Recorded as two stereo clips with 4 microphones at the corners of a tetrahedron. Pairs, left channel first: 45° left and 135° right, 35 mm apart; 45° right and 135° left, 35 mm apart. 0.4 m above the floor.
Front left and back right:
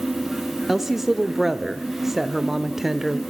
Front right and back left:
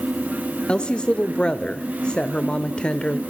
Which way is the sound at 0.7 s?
55° right.